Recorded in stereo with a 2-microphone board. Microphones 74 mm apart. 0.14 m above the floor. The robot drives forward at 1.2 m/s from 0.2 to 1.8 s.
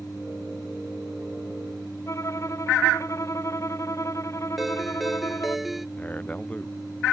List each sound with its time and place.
2.1 s a violin: 40° left (ahead or behind)
4.6 s a ringtone: centre (ahead or behind)
6.0 s a man speaking: 20° left (ahead or behind)